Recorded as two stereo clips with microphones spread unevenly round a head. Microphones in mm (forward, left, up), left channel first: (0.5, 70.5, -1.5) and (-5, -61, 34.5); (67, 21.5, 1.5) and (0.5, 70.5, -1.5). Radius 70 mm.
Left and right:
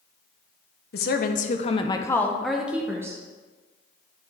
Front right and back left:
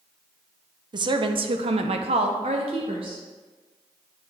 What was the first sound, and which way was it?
A woman speaking, 110° left.